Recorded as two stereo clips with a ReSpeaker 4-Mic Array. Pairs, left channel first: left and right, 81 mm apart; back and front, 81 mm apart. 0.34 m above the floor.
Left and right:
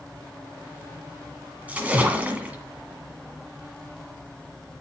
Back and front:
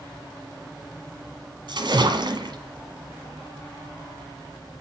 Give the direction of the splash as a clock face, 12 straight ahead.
1 o'clock.